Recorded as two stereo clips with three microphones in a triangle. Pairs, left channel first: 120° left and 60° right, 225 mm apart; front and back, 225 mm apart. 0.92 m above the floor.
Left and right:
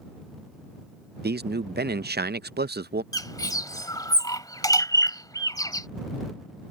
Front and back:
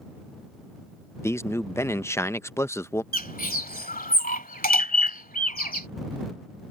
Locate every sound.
1.2 s a man speaking: 75° right
3.1 s a bird: 45° left